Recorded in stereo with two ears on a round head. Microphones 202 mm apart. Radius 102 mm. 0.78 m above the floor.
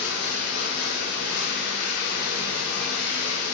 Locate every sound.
0.0 s running water: 75° left (ahead or behind), 1.3 m